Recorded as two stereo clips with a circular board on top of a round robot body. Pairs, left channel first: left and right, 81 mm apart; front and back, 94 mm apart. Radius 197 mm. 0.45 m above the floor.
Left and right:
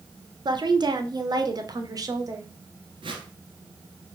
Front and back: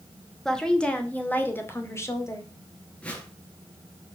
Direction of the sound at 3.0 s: 75° right.